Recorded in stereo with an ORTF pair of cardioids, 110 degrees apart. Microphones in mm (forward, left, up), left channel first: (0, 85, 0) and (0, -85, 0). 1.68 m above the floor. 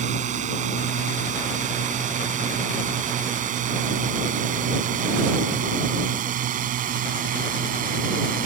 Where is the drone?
50° right; by 8.5 s 60° right.